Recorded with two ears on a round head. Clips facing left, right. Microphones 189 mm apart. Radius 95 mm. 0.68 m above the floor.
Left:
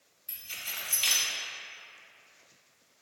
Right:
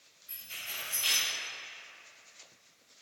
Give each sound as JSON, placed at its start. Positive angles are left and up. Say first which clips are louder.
{"t": 0.3, "sound": "keys jangling", "louder": "left 1 dB", "side_deg": 75, "distance_m": 1.3}